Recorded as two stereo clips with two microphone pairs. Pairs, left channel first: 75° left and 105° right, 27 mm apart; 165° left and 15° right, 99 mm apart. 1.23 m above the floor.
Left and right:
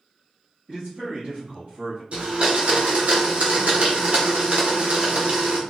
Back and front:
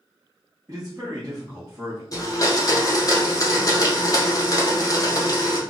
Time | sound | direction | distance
0.7 | a man speaking | 65° right | 1.1 m
2.1 | a blender | 145° right | 0.7 m